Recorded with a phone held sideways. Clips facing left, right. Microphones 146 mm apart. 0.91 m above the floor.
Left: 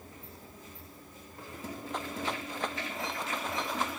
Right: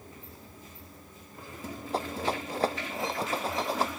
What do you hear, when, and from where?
1.9 s a rattle: 35° right (ahead or behind)